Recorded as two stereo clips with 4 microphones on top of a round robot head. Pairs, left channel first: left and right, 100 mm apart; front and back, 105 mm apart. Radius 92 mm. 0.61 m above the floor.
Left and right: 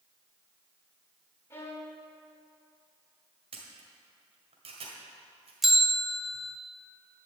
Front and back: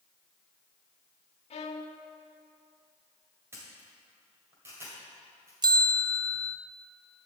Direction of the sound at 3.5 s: 110° right.